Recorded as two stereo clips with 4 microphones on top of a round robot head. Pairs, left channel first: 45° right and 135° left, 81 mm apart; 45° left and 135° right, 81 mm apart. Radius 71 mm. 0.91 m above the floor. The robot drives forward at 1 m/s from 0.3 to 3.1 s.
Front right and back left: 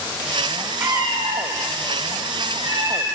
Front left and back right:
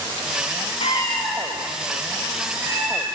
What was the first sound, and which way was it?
A cat meowing, 70° left.